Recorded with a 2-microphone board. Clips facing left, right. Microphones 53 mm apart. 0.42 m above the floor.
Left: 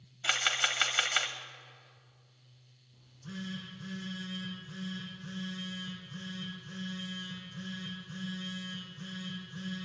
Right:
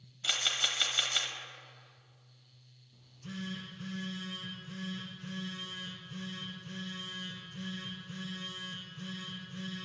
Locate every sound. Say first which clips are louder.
0.2 s a camera shutter: left 4 dB; 40° left (ahead or behind), 0.8 m
2.9 s a phone buzzing: even; 75° right (ahead or behind), 3.5 m